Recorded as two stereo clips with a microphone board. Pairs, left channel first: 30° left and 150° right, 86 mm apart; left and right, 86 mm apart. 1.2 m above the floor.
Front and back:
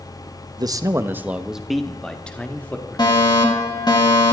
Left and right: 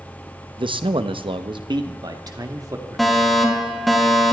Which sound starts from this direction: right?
A man speaking, at 0.6 s.